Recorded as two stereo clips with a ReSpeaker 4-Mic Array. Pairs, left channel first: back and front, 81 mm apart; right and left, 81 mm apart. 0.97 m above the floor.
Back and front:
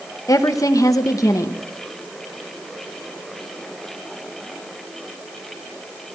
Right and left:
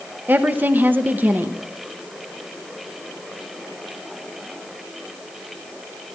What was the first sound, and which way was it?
A woman speaking, 150° left.